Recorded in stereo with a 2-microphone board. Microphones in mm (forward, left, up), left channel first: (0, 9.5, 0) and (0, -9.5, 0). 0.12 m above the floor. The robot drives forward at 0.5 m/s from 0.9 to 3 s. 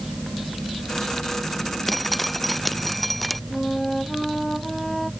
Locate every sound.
1.9 s dripping: 10° left (ahead or behind); by 3.4 s 5° left (ahead or behind)
3.5 s a flute: 5° left (ahead or behind)